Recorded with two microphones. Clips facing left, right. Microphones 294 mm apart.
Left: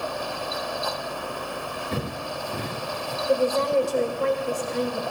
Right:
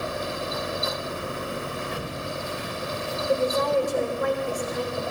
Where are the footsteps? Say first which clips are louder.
Left 2 dB; 50° left (ahead or behind), 3 m; by 3.2 s 65° left (ahead or behind), 2.5 m.